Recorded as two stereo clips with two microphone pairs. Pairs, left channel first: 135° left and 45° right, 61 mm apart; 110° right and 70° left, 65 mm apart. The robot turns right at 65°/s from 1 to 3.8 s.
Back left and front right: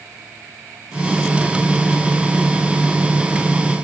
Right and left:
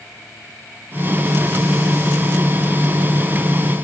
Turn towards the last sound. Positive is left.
No sound to turn to.